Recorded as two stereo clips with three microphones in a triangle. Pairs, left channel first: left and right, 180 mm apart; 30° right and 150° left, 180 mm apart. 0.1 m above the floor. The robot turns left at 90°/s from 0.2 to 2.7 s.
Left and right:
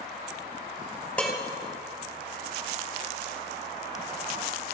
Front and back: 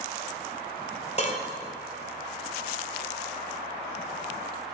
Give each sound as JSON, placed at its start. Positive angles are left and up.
{"t": 1.2, "sound": "dishes clattering", "azimuth_deg": 10, "distance_m": 1.6}